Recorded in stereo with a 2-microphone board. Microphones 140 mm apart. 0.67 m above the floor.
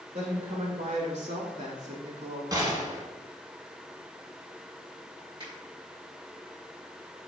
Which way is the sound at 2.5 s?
30° right (ahead or behind).